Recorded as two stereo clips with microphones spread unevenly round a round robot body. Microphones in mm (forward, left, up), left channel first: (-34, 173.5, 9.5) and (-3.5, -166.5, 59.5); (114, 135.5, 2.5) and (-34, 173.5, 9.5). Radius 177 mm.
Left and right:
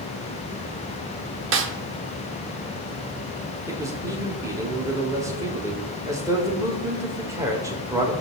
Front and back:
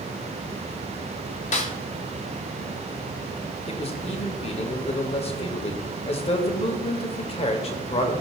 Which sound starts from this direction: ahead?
A man speaking, at 3.7 s.